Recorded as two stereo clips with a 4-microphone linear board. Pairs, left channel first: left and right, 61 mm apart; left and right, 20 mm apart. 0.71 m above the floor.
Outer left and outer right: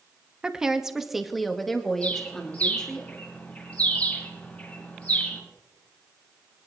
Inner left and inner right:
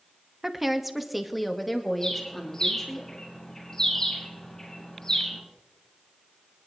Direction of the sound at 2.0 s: 20° left (ahead or behind).